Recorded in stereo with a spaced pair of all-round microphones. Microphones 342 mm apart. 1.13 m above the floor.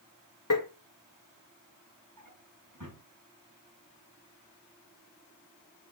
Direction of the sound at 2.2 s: 65° right (ahead or behind).